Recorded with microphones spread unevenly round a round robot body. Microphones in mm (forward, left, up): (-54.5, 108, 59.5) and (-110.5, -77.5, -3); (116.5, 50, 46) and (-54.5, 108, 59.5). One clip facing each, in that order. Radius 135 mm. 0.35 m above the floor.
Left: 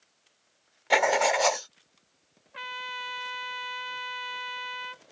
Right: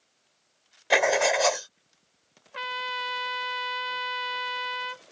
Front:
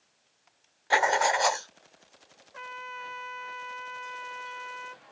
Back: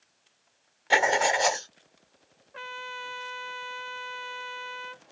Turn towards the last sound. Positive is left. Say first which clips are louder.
# right 7 dB, back 2 dB
turn(degrees=-130)